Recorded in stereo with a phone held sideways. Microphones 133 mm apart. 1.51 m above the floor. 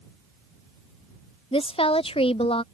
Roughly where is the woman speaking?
Left.